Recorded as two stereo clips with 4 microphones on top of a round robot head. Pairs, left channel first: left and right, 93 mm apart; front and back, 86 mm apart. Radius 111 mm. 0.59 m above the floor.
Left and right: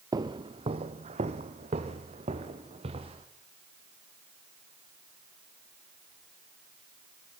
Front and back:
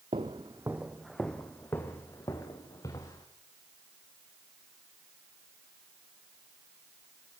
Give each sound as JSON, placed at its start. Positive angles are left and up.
{"t": 0.1, "sound": "footsteps", "azimuth_deg": -140, "distance_m": 1.0}